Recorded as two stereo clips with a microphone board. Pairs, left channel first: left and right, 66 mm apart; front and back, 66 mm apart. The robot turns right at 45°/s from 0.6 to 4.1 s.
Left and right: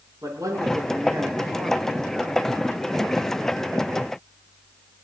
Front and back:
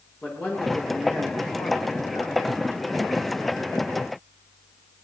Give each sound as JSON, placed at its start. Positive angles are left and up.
{"t": 0.2, "sound": "a man speaking", "azimuth_deg": -65, "distance_m": 8.0}